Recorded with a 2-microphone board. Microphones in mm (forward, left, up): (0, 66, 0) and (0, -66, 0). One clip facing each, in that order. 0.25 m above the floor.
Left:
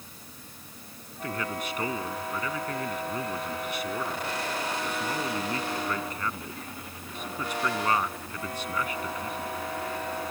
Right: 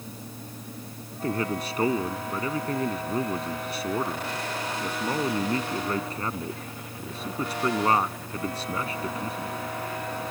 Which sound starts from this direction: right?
A man speaking, at 1.1 s.